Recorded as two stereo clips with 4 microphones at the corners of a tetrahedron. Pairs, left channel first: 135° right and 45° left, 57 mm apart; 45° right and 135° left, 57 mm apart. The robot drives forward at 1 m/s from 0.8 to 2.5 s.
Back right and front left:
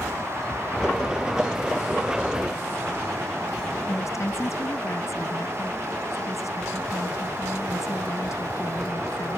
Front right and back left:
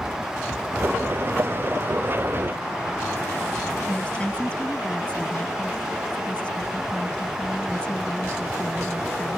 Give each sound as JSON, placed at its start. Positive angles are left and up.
{"t": 3.9, "sound": "a woman speaking", "azimuth_deg": -115}